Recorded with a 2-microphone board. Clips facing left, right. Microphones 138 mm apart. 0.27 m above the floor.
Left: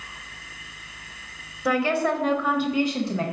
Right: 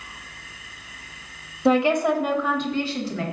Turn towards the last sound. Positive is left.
turn(degrees=25)  # may be behind; listen again after turning